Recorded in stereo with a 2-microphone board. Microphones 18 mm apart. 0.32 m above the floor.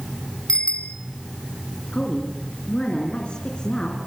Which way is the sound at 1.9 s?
65° left (ahead or behind).